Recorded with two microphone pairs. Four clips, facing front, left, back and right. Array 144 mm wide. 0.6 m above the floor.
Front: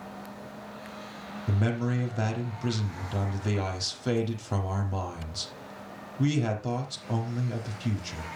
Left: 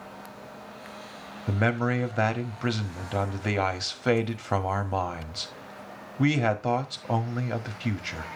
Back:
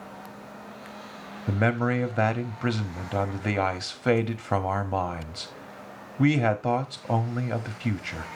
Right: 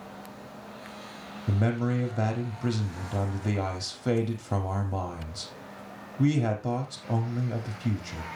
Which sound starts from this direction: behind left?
A man speaking, at 1.5 s.